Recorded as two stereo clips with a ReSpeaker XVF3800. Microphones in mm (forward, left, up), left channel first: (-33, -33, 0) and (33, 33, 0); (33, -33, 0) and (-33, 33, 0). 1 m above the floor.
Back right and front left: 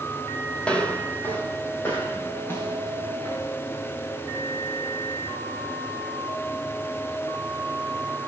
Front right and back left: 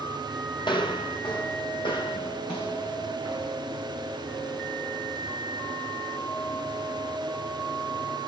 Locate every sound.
0.6 s footsteps: 55° right, 1.7 m; by 3.5 s 75° right, 5 m